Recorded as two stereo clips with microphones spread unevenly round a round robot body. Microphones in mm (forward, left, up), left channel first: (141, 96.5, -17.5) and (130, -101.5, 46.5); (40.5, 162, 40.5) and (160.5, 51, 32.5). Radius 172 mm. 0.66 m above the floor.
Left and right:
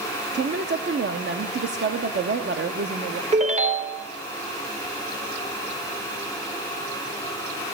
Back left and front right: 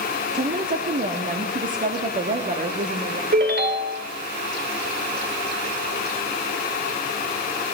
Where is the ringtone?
30° right, 1.7 m.